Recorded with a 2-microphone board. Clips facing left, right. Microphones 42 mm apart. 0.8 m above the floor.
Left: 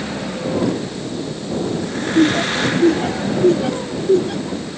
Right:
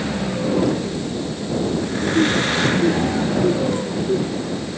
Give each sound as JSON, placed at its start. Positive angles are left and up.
{"t": 2.1, "sound": "laughter", "side_deg": 65}